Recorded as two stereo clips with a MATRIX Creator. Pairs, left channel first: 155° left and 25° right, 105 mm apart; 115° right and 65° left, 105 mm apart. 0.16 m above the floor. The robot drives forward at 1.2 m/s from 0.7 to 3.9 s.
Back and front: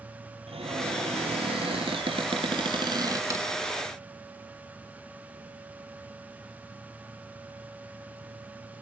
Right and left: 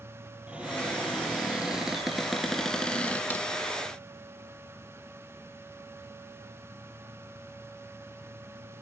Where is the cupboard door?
10° right, 4 m; by 3.5 s 60° right, 1.6 m.